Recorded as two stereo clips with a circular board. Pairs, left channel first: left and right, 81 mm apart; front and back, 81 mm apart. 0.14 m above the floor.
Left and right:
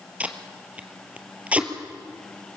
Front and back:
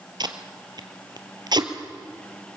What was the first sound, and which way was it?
Tape being pulled, 160° right.